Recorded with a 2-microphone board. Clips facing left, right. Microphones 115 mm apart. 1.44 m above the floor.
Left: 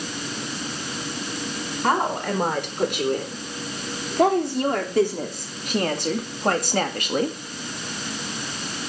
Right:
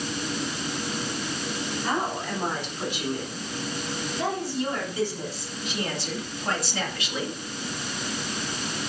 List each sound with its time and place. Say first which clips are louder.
1.8 s a woman speaking: left 7 dB; 65° left (ahead or behind), 5 m; by 7.4 s 50° left (ahead or behind), 2.0 m